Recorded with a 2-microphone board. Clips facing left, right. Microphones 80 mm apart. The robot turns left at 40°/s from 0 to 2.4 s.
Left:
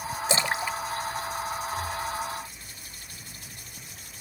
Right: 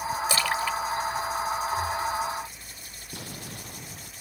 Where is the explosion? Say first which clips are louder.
Right 7 dB; 85° right.